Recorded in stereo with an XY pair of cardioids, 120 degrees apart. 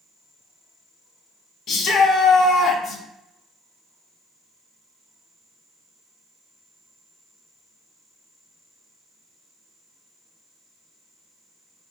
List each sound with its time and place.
1.7 s a shout: 60° left, 0.7 m